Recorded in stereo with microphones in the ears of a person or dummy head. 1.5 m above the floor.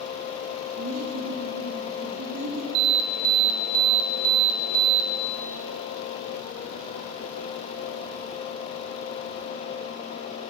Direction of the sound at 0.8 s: 80° right.